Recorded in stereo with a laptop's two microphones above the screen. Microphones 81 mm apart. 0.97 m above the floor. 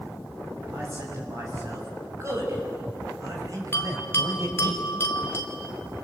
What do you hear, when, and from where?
0.7 s a man speaking: 35° right (ahead or behind), 6.5 m; by 4.7 s 45° right (ahead or behind), 4 m
3.7 s a bell: 30° left (ahead or behind), 2.5 m